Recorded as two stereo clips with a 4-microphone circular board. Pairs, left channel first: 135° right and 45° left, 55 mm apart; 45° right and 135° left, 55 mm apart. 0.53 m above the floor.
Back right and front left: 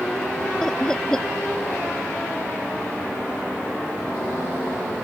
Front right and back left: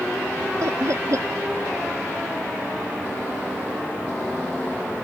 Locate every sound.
0.6 s laughter: 150° left